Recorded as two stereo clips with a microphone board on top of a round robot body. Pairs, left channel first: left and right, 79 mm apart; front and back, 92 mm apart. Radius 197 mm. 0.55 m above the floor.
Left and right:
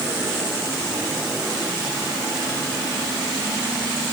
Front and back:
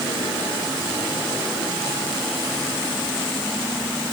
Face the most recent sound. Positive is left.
No sound to turn to.